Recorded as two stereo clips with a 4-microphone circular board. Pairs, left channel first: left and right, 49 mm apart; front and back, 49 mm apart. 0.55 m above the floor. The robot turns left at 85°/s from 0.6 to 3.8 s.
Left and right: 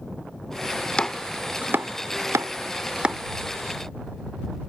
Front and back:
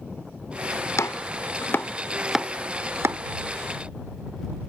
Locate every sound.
1.0 s chopping: 20° left; by 3.2 s 170° right